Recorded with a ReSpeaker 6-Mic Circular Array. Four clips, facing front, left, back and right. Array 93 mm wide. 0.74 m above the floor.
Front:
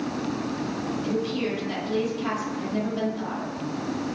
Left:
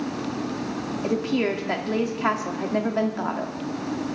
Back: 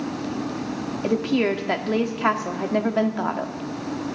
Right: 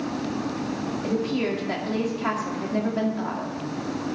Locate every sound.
1.0 s a woman speaking: 160° left, 1.7 m